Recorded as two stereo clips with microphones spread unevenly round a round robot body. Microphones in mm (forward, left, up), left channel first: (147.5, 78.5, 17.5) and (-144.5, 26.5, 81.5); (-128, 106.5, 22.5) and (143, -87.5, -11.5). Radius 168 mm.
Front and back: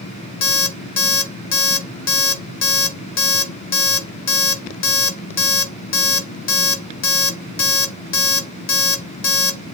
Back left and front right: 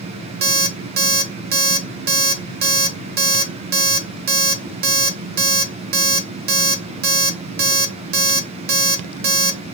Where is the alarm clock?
15° left, 1.0 m.